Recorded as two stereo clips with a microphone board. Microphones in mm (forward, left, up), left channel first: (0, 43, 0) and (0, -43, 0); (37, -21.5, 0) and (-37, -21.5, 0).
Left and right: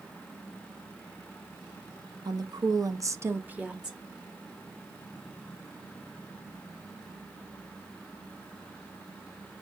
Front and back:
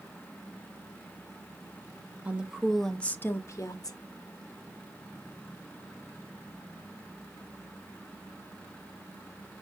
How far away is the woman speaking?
About 1.2 m.